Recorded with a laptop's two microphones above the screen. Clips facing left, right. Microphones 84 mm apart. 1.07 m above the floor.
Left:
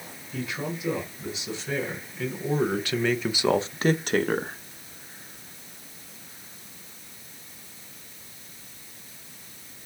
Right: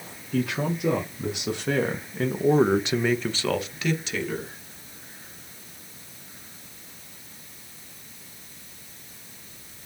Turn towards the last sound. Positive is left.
turn(degrees=60)  # may be behind; listen again after turning